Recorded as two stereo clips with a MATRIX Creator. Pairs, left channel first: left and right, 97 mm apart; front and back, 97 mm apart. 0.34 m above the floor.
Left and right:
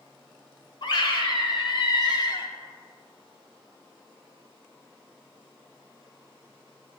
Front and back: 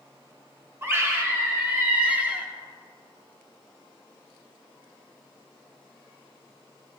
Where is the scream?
120° left, 2.0 m; by 2.5 s 105° left, 1.3 m.